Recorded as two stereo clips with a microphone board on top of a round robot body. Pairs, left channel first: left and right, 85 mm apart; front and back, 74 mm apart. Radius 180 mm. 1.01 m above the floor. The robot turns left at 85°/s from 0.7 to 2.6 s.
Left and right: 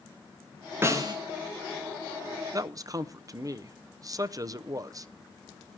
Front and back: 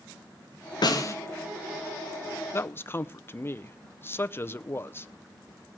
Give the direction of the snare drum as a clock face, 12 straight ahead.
1 o'clock.